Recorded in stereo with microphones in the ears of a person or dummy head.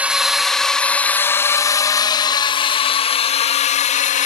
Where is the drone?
5° right (ahead or behind); by 4.3 s 40° left (ahead or behind).